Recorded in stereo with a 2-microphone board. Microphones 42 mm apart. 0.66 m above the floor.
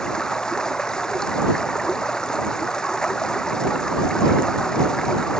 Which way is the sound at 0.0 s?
15° left (ahead or behind).